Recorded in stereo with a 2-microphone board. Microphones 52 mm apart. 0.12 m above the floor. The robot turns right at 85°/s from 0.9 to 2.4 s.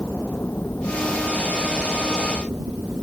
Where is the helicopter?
140° left; by 3.0 s 95° right.